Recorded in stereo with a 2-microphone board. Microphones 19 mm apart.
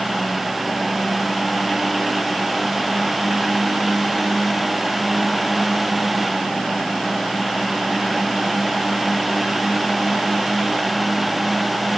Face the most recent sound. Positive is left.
No sound to turn to.